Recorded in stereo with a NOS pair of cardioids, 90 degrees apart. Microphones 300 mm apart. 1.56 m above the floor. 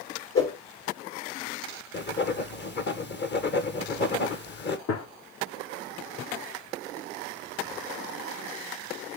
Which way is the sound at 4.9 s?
55° left.